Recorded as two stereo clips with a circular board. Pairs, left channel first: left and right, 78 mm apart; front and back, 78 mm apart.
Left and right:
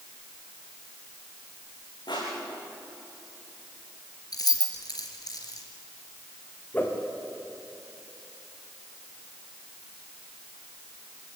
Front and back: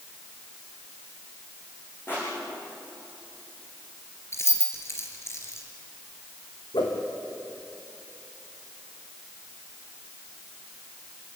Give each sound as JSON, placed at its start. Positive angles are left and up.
{"t": 2.1, "sound": "crushing", "azimuth_deg": 65, "distance_m": 9.5}
{"t": 4.3, "sound": "keys jangling", "azimuth_deg": 55, "distance_m": 3.5}
{"t": 6.7, "sound": "a whoosh", "azimuth_deg": 20, "distance_m": 3.5}